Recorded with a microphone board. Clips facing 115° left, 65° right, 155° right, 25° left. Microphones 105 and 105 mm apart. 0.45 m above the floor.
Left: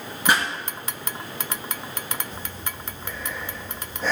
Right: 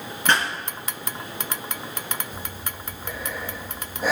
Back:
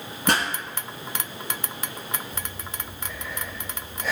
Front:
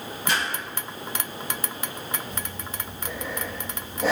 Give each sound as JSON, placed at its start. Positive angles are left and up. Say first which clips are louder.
{"t": 0.3, "sound": "a pop", "louder": "even, back 4 dB", "azimuth_deg": -170, "distance_m": 4.0}
{"t": 2.3, "sound": "breathing", "louder": "even, front 1 dB", "azimuth_deg": 15, "distance_m": 3.5}